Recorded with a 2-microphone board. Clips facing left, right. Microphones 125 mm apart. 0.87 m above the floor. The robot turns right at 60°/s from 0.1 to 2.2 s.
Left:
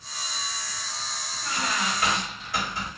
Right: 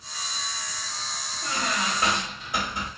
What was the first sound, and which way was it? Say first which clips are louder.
A squeak: even; 65° right.